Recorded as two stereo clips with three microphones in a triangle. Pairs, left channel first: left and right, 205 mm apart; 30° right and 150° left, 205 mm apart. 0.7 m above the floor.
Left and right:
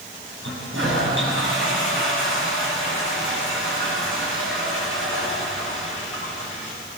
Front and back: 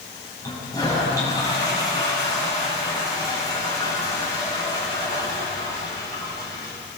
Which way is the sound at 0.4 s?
105° right.